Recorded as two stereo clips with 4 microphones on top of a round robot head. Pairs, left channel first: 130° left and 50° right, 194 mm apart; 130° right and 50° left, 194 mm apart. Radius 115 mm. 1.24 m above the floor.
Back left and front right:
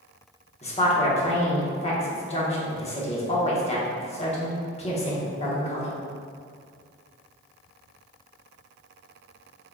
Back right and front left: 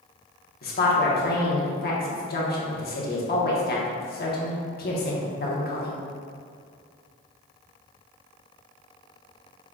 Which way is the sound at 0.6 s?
170° right.